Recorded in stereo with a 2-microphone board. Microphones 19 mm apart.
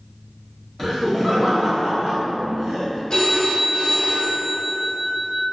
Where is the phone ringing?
45° left (ahead or behind), 0.9 m.